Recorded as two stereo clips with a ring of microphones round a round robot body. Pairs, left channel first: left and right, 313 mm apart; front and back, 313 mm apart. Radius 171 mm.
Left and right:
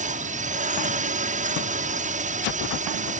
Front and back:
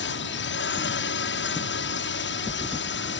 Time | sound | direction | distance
0.0 | a drone | 35° right | ?